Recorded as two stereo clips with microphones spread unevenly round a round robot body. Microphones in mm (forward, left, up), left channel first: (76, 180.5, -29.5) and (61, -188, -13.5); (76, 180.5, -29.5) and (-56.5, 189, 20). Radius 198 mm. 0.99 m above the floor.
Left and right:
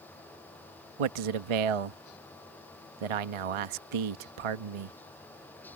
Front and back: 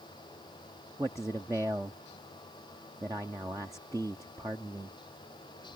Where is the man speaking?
95° right.